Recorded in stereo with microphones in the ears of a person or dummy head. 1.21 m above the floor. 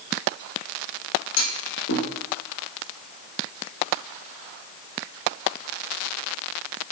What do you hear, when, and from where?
1.4 s a clunk: 85° left, 4 m